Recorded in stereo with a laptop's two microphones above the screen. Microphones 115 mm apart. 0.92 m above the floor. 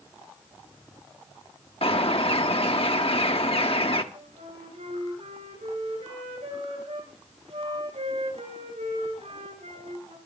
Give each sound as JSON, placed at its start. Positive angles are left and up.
{"t": 1.8, "sound": "a bird", "side_deg": 55, "distance_m": 1.2}
{"t": 4.1, "sound": "a flute", "side_deg": -75, "distance_m": 7.5}